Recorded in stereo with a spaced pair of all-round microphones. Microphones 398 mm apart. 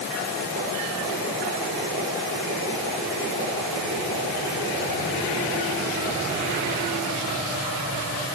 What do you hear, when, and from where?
Only background noise.